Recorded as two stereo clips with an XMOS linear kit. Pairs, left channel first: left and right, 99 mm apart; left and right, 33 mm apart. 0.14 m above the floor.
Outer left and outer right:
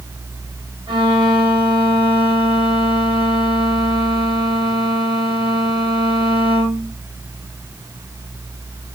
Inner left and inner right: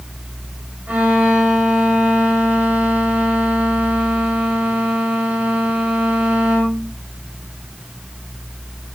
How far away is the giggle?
No giggle in this recording.